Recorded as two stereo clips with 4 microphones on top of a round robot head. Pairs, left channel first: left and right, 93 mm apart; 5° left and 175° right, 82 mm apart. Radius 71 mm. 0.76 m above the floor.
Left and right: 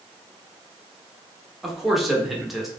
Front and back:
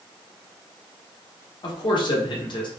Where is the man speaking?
Straight ahead, 0.9 m.